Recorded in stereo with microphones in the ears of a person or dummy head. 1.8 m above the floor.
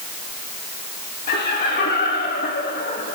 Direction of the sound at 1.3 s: 60° left (ahead or behind).